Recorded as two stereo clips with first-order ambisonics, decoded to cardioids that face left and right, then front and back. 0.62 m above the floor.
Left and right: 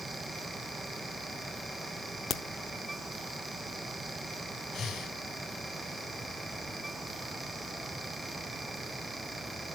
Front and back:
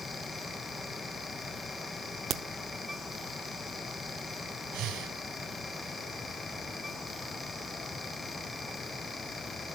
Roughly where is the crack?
Behind left.